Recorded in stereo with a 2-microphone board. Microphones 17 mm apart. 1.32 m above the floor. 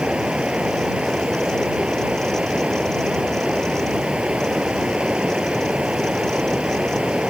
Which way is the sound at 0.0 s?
85° right.